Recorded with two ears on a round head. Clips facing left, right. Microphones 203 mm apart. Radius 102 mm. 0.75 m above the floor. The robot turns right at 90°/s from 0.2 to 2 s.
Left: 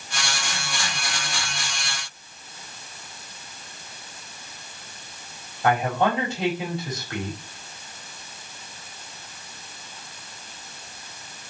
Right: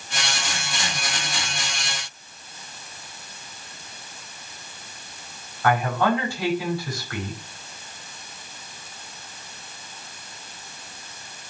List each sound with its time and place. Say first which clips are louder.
5.6 s a man speaking: even; 20° left (ahead or behind), 5 m